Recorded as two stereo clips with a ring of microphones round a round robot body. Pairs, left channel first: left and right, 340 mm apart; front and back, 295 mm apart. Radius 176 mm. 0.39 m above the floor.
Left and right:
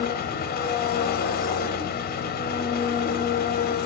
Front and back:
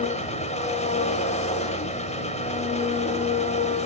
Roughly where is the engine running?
Ahead left.